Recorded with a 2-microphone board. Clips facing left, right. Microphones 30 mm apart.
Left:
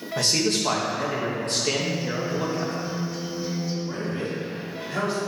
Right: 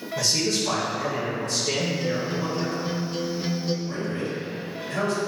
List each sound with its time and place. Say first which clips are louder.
0.2 s a man speaking: left 1 dB; 55° left (ahead or behind), 2.0 m
1.8 s a guitar: right 1 dB; 50° right (ahead or behind), 0.7 m
3.9 s a man speaking: even; 35° left (ahead or behind), 2.5 m